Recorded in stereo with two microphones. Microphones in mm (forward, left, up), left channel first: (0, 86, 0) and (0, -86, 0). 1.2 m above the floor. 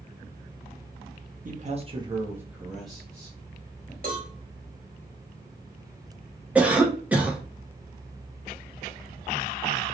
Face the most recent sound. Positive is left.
turn(degrees=-10)  # may be behind; listen again after turning